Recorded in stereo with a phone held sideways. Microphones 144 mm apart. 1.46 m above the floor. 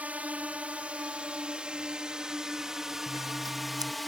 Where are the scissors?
25° right (ahead or behind).